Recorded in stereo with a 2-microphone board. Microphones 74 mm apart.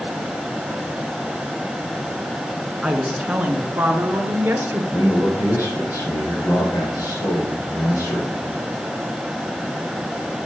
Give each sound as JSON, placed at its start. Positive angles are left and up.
{"t": 2.8, "sound": "a woman speaking", "side_deg": -5, "distance_m": 1.4}
{"t": 4.9, "sound": "a man speaking", "side_deg": 50, "distance_m": 4.0}